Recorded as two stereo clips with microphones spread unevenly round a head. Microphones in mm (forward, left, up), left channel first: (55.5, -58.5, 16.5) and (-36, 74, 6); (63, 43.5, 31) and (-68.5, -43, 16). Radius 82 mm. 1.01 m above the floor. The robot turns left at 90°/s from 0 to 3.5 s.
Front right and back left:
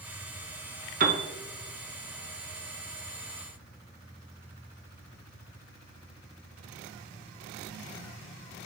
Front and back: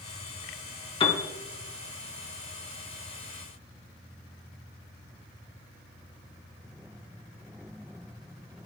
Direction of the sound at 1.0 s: 90° left.